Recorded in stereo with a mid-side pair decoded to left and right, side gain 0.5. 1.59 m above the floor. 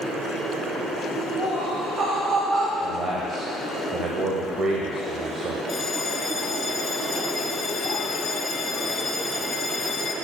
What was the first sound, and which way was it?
Laughter, 45° right.